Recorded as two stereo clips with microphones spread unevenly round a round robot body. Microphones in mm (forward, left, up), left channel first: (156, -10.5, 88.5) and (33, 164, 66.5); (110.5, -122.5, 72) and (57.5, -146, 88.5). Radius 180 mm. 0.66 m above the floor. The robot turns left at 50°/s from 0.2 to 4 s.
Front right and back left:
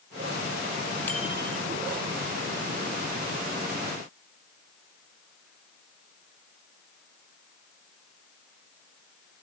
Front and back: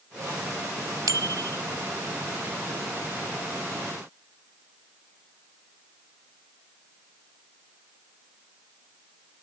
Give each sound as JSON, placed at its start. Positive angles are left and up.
{"t": 1.1, "sound": "a bicycle bell", "azimuth_deg": -140}